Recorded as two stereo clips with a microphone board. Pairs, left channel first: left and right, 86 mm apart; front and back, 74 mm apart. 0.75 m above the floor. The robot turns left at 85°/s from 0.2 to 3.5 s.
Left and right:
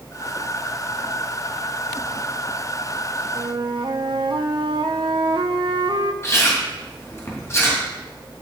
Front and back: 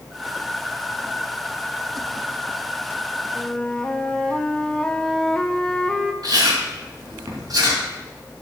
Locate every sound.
3.4 s a flute: 65° right, 0.8 m; by 6.1 s 80° right, 0.8 m
6.2 s chewing: 150° left, 4 m